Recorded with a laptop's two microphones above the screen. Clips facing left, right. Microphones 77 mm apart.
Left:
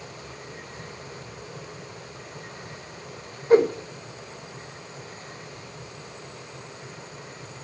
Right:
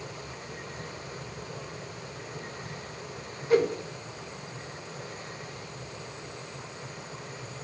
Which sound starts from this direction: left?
A whoosh, at 3.5 s.